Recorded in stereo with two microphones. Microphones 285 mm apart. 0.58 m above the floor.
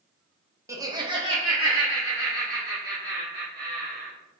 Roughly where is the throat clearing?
No throat clearing in this recording.